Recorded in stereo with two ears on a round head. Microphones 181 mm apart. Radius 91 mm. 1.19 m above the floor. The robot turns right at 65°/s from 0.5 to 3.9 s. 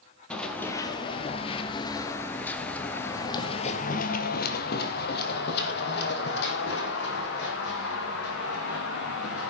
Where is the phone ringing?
No phone ringing in this recording.